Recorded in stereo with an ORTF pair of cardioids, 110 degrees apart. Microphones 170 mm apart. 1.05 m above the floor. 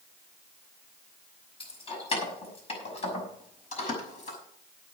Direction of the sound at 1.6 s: 30° left.